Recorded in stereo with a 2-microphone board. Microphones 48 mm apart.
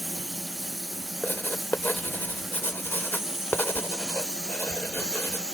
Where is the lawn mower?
Centre (ahead or behind); by 5.5 s 15° right (ahead or behind).